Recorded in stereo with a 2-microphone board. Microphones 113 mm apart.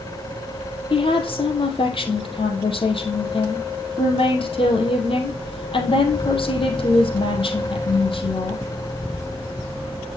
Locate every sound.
0.9 s a woman speaking: 55° left (ahead or behind), 3 m